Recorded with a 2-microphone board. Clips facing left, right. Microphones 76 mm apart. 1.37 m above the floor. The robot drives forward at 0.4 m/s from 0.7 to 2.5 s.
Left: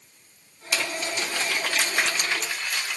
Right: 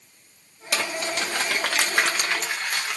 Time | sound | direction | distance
0.7 | crumpling | 70° right (ahead or behind) | 1.4 m